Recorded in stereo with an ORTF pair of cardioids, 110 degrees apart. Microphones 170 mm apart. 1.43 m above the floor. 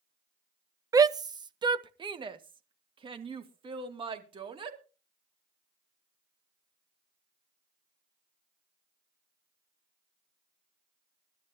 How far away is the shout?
About 0.5 m.